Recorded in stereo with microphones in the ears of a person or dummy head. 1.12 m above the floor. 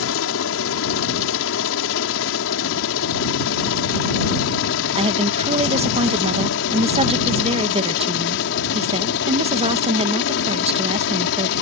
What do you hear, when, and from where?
0.0 s a helicopter: 65° left (ahead or behind); by 11.6 s 55° left (ahead or behind)
5.0 s a woman speaking: 30° right (ahead or behind)